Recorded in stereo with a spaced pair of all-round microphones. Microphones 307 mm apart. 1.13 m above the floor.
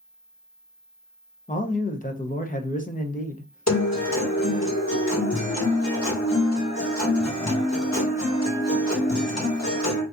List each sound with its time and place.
1.5 s a man speaking: 25° left (ahead or behind), 0.6 m
3.7 s a guitar: 55° left (ahead or behind), 1.4 m